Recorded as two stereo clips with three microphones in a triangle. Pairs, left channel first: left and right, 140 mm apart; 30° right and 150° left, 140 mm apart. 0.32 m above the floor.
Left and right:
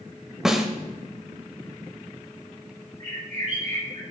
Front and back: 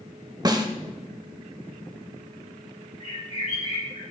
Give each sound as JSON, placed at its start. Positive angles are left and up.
{"t": 0.5, "sound": "a snare drum", "azimuth_deg": -175, "distance_m": 0.6}
{"t": 3.0, "sound": "a bird", "azimuth_deg": -70, "distance_m": 3.5}